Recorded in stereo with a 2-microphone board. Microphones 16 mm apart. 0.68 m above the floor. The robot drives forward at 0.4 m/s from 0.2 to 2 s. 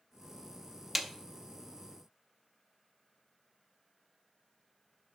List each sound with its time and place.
0.9 s a snare drum: 5° right (ahead or behind), 0.5 m; by 1.1 s 10° right (ahead or behind), 0.5 m